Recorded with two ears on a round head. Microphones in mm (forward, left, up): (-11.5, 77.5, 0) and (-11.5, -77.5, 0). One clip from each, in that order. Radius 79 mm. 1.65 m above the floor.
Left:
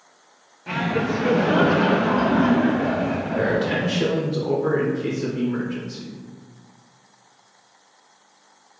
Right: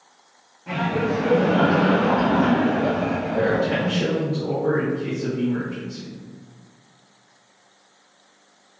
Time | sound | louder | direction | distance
0.7 | laughter | even | 35° left (ahead or behind) | 0.9 m
3.4 | a man speaking | right 1 dB | 70° left (ahead or behind) | 0.9 m